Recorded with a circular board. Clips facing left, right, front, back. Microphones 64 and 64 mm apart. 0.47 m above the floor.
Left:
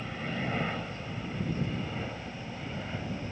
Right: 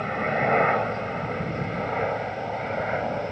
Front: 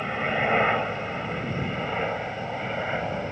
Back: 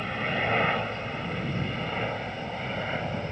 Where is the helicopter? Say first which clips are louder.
Right 11 dB, front 3 dB; 70° right; by 3.3 s 75° right.